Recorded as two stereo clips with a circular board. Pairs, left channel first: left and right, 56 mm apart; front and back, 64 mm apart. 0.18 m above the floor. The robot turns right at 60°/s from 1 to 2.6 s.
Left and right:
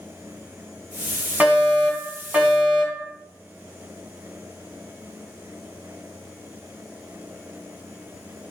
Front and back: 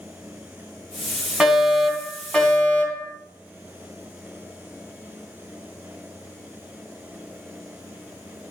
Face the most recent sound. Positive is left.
turn(degrees=-45)